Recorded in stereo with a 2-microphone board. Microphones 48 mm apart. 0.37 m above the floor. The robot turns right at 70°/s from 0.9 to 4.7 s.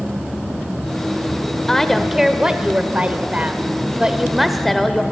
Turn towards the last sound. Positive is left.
turn(degrees=10)